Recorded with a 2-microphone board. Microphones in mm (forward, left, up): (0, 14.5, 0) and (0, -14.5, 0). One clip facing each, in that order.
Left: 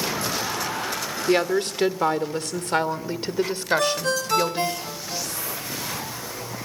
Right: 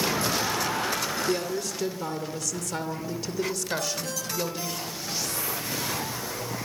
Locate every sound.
1.3 s a woman speaking: 60° left (ahead or behind), 2 m; by 4.8 s 30° left (ahead or behind), 3 m
3.8 s a ringtone: 65° left (ahead or behind), 1.3 m